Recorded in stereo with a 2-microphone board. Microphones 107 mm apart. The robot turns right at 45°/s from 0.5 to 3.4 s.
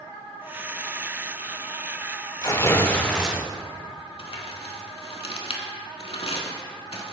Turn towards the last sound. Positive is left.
turn(degrees=65)  # may be behind; listen again after turning